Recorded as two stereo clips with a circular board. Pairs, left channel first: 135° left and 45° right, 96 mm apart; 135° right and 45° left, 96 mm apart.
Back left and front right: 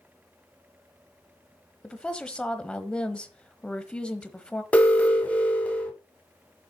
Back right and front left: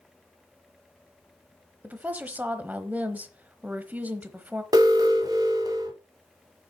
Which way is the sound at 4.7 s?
65° left.